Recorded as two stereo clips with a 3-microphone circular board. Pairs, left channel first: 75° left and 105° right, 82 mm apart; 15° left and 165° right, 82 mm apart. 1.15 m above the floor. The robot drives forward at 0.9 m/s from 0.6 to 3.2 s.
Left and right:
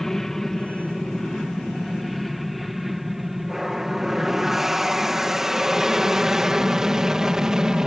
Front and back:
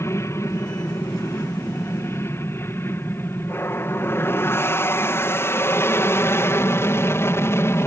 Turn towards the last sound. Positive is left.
turn(degrees=-25)